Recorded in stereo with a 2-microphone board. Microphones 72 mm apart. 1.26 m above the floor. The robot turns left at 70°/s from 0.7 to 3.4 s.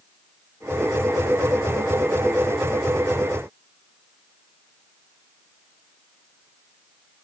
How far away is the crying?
No crying in this recording.